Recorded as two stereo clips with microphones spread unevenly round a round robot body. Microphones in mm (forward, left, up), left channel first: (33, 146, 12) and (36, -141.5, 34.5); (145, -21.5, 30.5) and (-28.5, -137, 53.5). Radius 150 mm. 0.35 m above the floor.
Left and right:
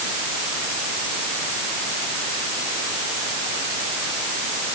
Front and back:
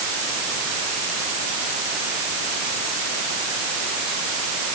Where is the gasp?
I don't hear a gasp.